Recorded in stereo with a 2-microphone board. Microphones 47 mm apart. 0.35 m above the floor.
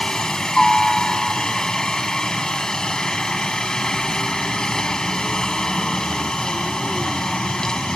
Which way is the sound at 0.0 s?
15° left (ahead or behind).